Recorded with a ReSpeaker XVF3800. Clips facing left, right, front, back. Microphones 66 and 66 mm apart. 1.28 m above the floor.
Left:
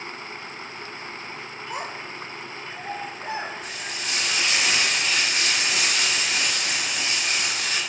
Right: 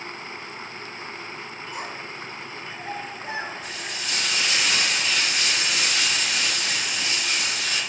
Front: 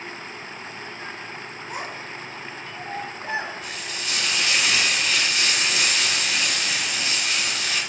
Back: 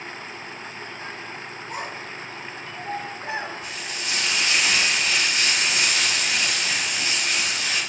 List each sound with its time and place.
1.7 s a child speaking: 85° left, 1.0 m; by 3.5 s 90° left, 3 m
3.6 s frying: 120° left, 2.5 m